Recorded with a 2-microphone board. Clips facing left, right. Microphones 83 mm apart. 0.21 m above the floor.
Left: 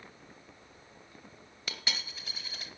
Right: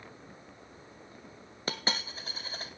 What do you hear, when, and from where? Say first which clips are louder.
1.7 s a dropped coin: right 6 dB; 35° right (ahead or behind), 1.7 m